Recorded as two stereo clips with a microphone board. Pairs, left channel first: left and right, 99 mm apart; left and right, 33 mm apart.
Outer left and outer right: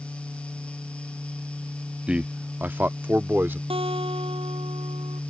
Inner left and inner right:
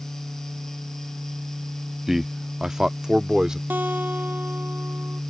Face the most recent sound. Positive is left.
turn(degrees=-70)  # may be behind; listen again after turning